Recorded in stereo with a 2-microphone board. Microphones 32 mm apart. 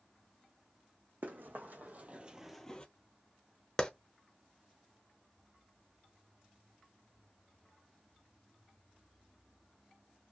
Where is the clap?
20° left (ahead or behind), 0.7 m.